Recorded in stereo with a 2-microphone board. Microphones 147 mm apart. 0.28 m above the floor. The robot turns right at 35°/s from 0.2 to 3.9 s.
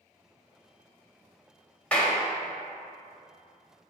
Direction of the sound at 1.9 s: 10° left (ahead or behind).